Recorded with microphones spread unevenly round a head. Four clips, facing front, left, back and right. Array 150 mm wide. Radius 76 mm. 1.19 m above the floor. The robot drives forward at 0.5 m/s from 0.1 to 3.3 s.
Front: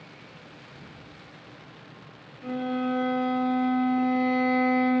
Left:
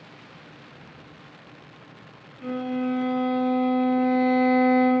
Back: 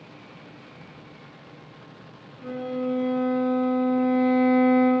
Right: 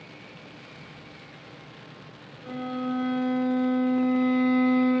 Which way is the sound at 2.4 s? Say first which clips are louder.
Left 4 dB, even; 120° left.